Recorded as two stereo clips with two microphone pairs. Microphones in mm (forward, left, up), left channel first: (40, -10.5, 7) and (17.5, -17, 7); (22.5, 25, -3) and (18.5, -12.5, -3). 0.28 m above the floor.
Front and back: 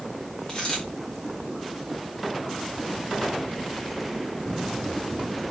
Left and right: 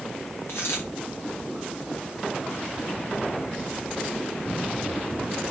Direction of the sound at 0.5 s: 70° left.